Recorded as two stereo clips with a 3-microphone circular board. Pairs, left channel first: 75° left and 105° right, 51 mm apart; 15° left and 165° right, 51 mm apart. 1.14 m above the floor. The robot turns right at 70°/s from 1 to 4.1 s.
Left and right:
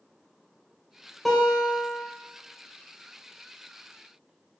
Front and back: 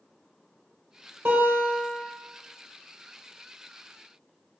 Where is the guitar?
160° left, 1.6 m; by 2.0 s 145° right, 1.6 m.